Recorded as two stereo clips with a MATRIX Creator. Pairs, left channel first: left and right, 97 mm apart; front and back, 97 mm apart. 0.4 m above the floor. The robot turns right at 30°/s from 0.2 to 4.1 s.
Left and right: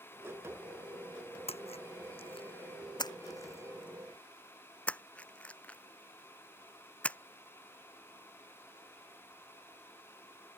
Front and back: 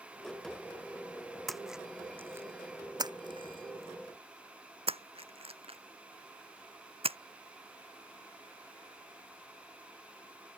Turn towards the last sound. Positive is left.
turn(degrees=165)